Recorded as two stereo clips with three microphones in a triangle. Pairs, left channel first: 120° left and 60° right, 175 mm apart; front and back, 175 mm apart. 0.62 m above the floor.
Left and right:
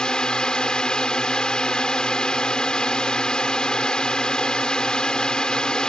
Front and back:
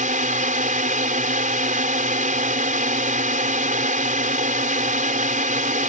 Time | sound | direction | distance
0.0 | a drone | 155° right | ?